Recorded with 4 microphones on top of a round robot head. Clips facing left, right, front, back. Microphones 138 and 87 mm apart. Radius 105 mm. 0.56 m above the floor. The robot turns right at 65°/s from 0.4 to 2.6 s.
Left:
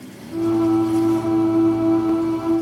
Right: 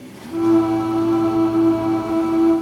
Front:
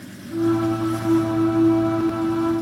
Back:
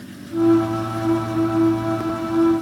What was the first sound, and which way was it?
Only background noise.